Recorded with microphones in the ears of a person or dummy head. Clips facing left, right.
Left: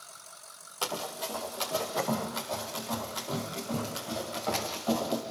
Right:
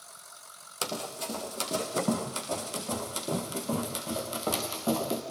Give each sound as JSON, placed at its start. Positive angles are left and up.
{"t": 0.8, "sound": "running footsteps", "side_deg": -25, "distance_m": 4.0}